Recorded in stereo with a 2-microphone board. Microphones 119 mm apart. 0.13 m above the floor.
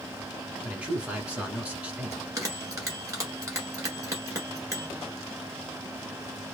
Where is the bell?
30° right (ahead or behind), 1.5 m.